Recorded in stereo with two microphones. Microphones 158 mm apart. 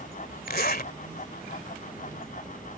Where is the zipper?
70° left (ahead or behind).